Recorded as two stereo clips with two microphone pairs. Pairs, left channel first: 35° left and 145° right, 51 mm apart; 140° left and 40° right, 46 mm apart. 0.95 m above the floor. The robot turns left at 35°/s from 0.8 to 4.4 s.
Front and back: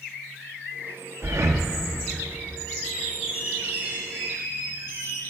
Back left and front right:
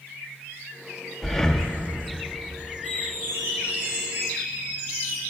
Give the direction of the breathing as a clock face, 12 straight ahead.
5 o'clock.